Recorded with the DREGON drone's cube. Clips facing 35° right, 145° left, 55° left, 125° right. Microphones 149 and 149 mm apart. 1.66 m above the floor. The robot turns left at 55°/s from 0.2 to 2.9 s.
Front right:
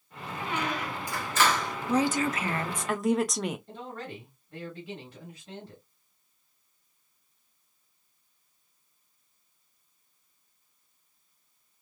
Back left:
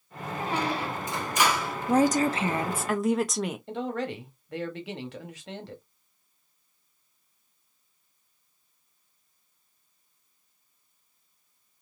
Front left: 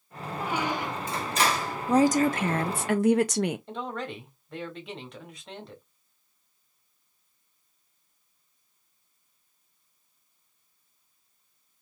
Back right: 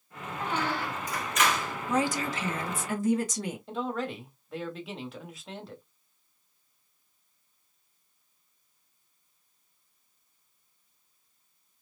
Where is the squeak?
135° left, 0.7 m; by 1.8 s 60° left, 0.7 m.